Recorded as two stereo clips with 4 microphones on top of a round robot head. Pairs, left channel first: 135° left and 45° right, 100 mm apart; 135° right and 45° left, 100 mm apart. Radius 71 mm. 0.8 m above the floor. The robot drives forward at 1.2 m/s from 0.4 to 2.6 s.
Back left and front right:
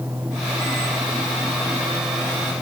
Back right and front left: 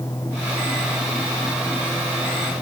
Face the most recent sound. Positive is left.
No sound to turn to.